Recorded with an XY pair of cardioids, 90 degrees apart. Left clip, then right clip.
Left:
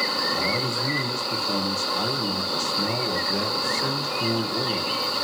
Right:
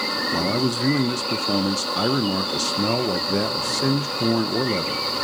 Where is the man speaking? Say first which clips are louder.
Right 1 dB; 60° right, 0.5 m.